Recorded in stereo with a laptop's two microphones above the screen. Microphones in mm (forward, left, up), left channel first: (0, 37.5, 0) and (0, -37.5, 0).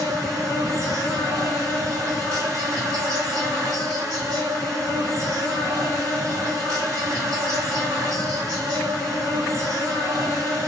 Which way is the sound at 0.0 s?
55° right (ahead or behind).